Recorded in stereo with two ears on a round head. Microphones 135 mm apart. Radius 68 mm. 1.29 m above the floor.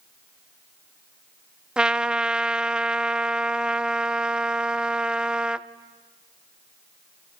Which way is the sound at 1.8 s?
5° right (ahead or behind).